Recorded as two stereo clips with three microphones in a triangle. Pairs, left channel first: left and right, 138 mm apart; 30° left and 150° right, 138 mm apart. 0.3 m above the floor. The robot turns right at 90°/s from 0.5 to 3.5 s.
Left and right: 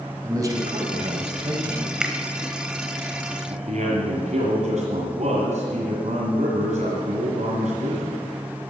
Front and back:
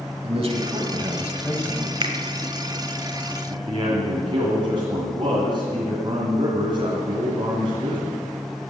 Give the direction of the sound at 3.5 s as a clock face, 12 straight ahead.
3 o'clock.